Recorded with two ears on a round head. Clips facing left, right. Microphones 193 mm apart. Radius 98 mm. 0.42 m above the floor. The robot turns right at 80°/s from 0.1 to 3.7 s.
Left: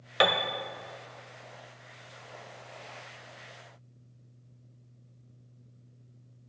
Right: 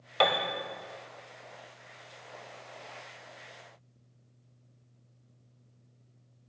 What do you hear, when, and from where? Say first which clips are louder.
0.2 s a piano: left 1 dB; 20° left (ahead or behind), 0.6 m; by 0.5 s 5° right (ahead or behind), 0.6 m